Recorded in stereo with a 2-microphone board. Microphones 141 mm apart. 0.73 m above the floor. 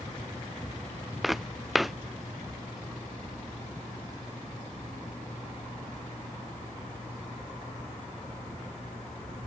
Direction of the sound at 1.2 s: Centre (ahead or behind).